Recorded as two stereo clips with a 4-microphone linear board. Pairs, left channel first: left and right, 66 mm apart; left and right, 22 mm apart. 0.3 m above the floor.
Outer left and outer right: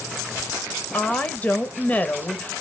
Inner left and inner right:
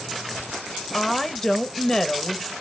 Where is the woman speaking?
25° left (ahead or behind), 0.9 m.